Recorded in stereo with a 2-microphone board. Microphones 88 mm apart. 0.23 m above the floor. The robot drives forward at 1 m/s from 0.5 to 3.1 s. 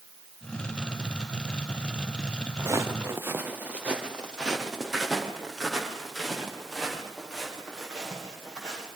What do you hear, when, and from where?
2.6 s footsteps: 35° right (ahead or behind), 2.0 m; by 8.9 s 10° left (ahead or behind), 8.5 m